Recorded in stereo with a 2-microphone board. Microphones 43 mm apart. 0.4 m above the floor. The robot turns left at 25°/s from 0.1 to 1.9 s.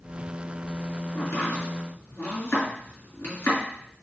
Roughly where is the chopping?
Left.